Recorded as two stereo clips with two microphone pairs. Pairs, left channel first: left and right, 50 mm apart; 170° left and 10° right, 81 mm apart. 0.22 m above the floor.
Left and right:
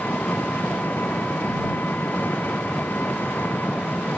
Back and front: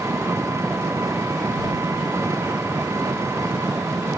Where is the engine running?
40° left.